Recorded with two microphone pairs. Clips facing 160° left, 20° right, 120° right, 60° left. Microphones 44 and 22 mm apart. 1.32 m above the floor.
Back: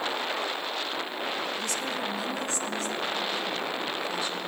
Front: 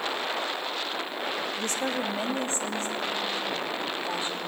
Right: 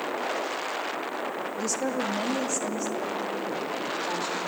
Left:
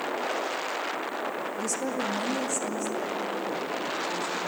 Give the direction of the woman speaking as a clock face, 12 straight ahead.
2 o'clock.